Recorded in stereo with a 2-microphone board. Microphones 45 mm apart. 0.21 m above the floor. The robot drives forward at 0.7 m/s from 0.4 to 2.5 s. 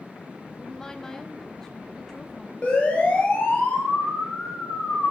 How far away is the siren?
About 5.5 m.